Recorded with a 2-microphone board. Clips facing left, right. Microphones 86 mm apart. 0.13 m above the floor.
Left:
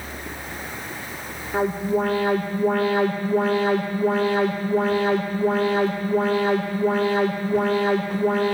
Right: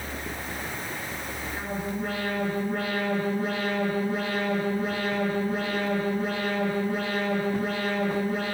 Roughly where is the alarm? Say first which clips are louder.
Left 12 dB; left.